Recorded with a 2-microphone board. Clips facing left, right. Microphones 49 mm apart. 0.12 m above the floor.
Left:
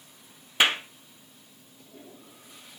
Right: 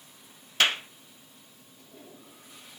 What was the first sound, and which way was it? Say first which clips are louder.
A clap: left 2 dB; 20° left (ahead or behind).